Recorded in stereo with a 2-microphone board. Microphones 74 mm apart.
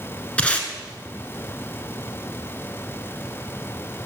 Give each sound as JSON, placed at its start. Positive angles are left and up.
{"t": 0.4, "sound": "tape being pulled", "side_deg": 20, "distance_m": 0.8}